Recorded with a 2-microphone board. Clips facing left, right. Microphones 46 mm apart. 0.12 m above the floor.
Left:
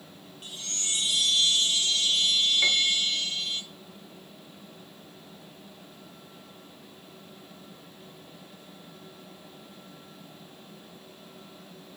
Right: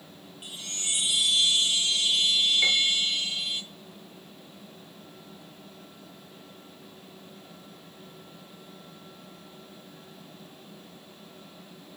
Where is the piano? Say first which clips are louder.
Even; centre (ahead or behind), 0.9 m.